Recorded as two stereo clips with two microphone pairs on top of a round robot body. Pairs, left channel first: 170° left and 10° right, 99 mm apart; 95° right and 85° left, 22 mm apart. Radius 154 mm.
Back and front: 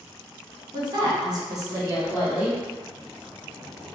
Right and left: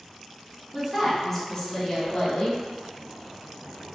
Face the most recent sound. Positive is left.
turn(degrees=-85)